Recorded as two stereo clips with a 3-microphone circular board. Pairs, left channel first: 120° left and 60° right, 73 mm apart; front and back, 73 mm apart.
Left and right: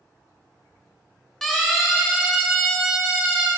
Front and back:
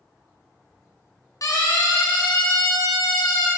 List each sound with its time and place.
1.4 s a siren: 35° left, 4 m; by 3.5 s 15° left, 4.5 m